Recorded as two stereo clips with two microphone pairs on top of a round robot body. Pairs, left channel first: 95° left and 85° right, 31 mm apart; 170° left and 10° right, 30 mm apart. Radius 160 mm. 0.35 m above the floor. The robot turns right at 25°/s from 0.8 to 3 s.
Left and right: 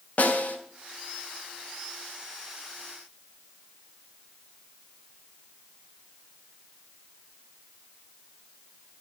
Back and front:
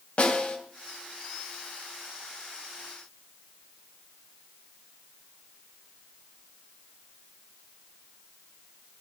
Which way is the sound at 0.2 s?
125° left.